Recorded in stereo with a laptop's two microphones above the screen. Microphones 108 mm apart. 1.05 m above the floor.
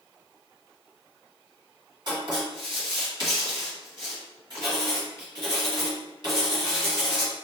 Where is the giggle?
No giggle in this recording.